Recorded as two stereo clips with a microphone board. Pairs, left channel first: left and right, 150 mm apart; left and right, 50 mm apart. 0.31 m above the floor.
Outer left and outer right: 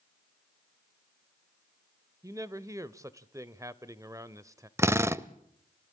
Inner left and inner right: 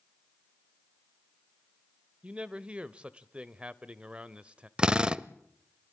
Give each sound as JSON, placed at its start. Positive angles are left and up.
{"t": 2.2, "sound": "a man speaking", "side_deg": -20, "distance_m": 0.9}
{"t": 4.8, "sound": "a drill", "side_deg": -15, "distance_m": 0.5}